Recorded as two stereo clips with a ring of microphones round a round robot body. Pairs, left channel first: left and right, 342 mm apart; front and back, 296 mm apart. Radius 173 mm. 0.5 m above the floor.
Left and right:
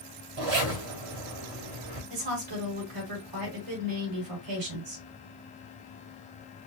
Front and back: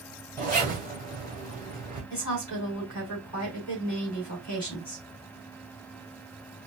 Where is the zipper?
85° right, 2 m.